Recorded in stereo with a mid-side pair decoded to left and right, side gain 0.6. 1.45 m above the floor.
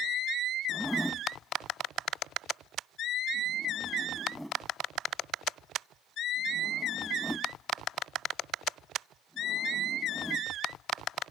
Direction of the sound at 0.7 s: Straight ahead.